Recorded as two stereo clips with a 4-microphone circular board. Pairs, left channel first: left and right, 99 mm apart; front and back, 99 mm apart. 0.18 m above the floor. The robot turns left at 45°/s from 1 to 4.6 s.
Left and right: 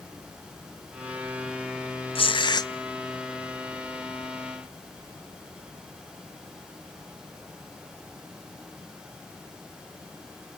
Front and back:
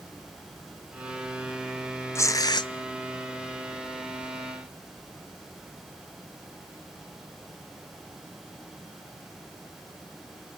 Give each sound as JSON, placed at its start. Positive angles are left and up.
{"t": 2.1, "sound": "tearing paper", "azimuth_deg": 65, "distance_m": 0.5}